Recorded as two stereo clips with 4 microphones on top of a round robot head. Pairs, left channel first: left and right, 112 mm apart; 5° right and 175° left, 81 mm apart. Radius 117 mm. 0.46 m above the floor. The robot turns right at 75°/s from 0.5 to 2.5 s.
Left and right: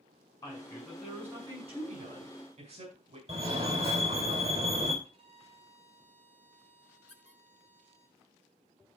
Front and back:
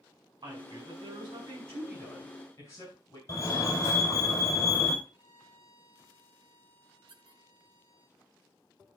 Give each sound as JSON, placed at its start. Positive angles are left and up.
{"t": 0.4, "sound": "a woman speaking", "azimuth_deg": 145, "distance_m": 6.0}
{"t": 3.3, "sound": "a fire alarm", "azimuth_deg": -60, "distance_m": 4.5}
{"t": 5.0, "sound": "a violin", "azimuth_deg": -60, "distance_m": 6.0}
{"t": 7.1, "sound": "a squeak", "azimuth_deg": 175, "distance_m": 3.5}